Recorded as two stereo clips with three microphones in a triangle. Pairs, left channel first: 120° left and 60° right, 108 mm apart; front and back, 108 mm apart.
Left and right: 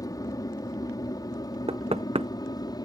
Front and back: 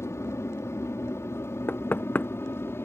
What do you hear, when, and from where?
0.0 s an aircraft: 65° left
1.7 s knocking: 70° right